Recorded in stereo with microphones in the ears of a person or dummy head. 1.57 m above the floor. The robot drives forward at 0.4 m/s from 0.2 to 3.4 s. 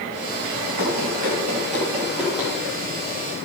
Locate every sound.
0.8 s running footsteps: 30° right (ahead or behind), 1.8 m